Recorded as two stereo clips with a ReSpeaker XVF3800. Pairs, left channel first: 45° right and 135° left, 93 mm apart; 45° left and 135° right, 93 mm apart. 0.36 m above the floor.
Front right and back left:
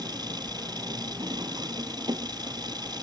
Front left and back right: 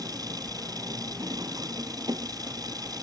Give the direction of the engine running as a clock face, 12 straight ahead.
6 o'clock.